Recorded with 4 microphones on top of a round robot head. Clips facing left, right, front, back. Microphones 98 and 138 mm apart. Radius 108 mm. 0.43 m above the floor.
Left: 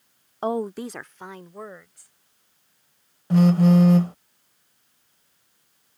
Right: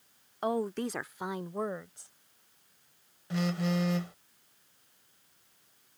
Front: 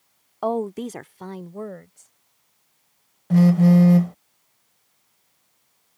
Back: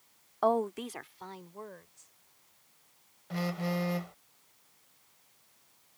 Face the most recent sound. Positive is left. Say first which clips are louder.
# left 14 dB, front 18 dB
turn(degrees=45)